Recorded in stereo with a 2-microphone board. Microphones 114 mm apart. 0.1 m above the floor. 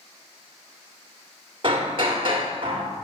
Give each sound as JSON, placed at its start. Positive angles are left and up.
{"t": 1.6, "sound": "hammering", "side_deg": -50, "distance_m": 1.3}